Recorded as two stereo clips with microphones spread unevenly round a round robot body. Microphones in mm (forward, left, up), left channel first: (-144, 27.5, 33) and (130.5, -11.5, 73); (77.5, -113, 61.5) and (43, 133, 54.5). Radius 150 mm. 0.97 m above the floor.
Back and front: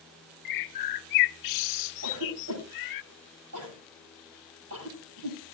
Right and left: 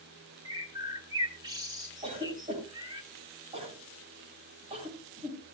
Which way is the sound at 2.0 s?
35° left.